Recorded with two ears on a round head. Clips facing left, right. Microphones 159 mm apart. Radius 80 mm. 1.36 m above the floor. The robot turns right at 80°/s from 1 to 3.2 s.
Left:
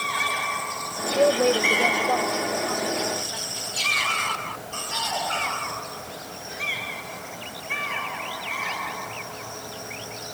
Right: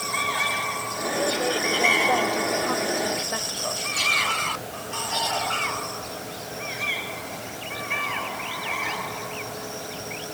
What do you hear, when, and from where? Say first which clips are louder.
1.1 s a woman speaking: left 7 dB; 110° left; by 3.8 s 85° right